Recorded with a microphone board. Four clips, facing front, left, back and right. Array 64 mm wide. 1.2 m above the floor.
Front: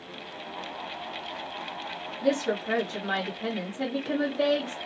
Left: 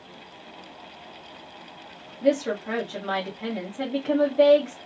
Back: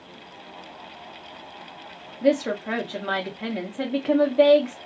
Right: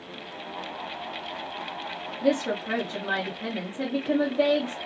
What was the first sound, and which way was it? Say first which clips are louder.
A woman speaking: left 2 dB, back 4 dB; 175° left.